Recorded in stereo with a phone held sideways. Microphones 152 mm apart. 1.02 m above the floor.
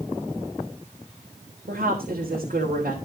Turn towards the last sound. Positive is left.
turn(degrees=-85)